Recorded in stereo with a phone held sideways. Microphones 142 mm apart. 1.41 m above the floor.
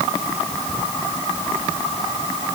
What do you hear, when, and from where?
Only background noise.